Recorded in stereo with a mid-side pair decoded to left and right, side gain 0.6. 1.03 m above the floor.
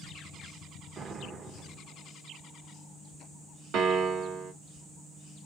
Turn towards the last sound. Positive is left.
turn(degrees=-65)